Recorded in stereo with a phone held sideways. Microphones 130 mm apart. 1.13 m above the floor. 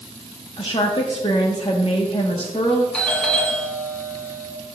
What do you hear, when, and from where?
0.6 s a woman speaking: 45° left (ahead or behind), 1.3 m
2.9 s a doorbell: 5° left (ahead or behind), 1.8 m